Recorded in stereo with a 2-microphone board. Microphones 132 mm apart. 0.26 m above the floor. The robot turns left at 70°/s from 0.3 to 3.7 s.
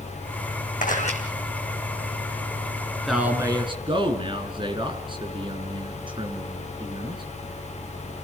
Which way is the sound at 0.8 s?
80° left.